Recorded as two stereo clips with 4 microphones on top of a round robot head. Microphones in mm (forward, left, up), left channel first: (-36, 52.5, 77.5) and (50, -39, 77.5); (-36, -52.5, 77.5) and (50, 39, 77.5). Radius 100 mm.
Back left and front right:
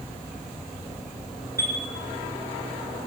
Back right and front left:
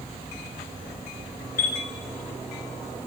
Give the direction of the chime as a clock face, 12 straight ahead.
4 o'clock.